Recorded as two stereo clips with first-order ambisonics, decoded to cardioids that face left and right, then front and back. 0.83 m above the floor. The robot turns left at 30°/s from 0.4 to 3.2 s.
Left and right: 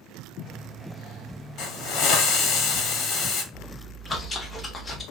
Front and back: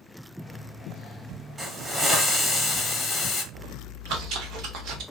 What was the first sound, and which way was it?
A hiss, 105° left.